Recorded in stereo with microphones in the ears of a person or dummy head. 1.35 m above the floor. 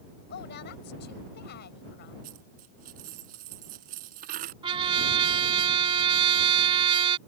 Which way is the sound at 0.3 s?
55° left (ahead or behind).